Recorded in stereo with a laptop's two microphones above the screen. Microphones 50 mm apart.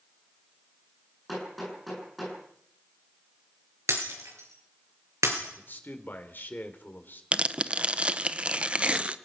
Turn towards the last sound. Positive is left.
turn(degrees=-25)  # may be behind; listen again after turning